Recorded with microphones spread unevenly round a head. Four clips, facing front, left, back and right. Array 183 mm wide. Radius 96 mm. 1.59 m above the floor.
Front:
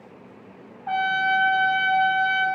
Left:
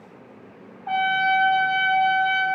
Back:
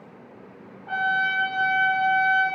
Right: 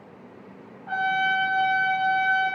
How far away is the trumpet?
About 3 m.